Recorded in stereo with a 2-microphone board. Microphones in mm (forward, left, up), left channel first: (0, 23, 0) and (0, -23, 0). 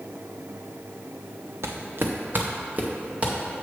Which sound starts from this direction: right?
Footsteps, at 1.6 s.